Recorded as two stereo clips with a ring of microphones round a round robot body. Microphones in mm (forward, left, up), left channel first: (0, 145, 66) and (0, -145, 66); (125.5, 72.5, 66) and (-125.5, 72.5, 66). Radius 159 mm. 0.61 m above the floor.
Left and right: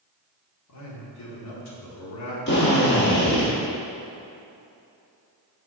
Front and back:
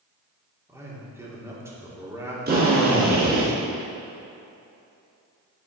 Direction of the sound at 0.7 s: 100° left.